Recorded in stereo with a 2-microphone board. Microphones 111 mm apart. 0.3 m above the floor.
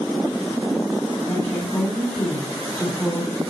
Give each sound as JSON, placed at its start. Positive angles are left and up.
{"t": 1.3, "sound": "a woman speaking", "side_deg": 10, "distance_m": 3.0}